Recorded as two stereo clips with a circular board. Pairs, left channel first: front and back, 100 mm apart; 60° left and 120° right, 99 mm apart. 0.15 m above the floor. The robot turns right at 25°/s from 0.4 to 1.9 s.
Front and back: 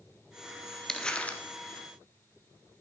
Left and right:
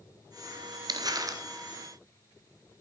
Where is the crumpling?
85° right, 0.9 m; by 1.4 s 70° right, 0.9 m.